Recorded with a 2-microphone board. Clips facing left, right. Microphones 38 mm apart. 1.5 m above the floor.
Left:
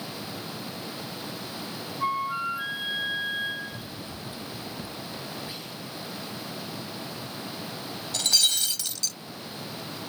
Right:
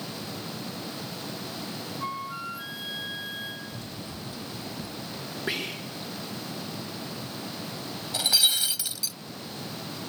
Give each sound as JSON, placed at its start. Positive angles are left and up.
{"t": 2.0, "sound": "a flute", "side_deg": 25}
{"t": 3.7, "sound": "running footsteps", "side_deg": 10}
{"t": 5.5, "sound": "whispering", "side_deg": -90}
{"t": 8.1, "sound": "breaking glass", "side_deg": -15}